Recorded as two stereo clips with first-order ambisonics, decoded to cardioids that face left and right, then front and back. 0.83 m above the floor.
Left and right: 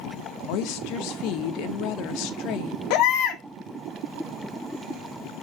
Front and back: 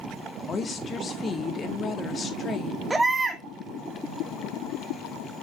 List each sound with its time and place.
0.5 s a woman speaking: 70° left, 1.4 m
2.9 s a baby crying: 100° left, 1.6 m